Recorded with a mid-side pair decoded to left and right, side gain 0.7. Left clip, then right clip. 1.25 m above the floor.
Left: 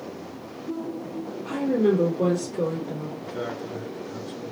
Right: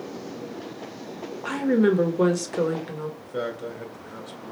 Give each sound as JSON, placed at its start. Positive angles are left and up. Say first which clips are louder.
{"t": 1.4, "sound": "a woman speaking", "louder": "right 1 dB", "azimuth_deg": -65, "distance_m": 1.1}
{"t": 3.2, "sound": "a man speaking", "louder": "right 2 dB", "azimuth_deg": -35, "distance_m": 1.4}